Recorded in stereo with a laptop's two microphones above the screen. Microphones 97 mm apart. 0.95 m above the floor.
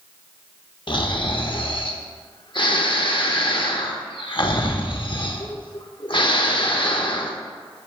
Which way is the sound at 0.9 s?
55° left (ahead or behind).